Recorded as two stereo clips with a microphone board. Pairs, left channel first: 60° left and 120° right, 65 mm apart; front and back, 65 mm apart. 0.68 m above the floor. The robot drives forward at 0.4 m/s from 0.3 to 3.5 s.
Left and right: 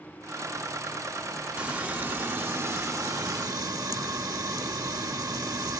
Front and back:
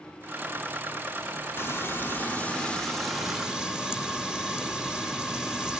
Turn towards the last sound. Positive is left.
turn(degrees=-100)